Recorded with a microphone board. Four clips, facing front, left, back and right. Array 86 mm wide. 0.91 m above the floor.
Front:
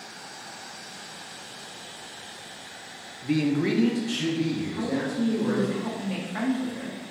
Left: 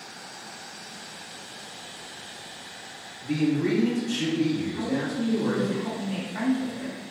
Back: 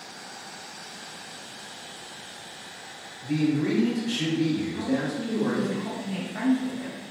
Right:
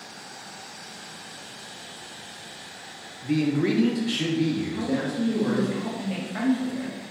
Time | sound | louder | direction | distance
3.2 | a man speaking | right 1 dB, even | 15° right | 0.7 m
4.7 | a woman speaking | right 1 dB, even | 45° right | 1.3 m